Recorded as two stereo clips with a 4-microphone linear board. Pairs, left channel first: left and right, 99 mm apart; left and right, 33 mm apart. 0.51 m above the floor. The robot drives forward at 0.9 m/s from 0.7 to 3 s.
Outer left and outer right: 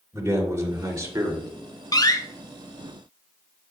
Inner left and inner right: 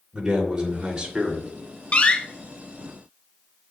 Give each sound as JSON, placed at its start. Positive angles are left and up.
{"t": 0.1, "sound": "a man speaking", "side_deg": -30, "distance_m": 2.0}
{"t": 1.9, "sound": "a door slam", "side_deg": 40, "distance_m": 0.6}